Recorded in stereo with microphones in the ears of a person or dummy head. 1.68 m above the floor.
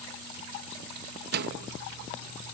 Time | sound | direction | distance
1.3 | a microwave | 55° right (ahead or behind) | ?